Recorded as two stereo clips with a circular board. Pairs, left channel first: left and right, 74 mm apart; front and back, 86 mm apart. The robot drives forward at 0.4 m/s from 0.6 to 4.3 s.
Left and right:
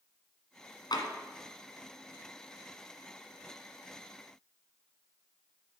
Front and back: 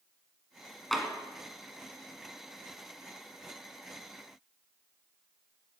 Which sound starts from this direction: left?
Tapping, at 0.9 s.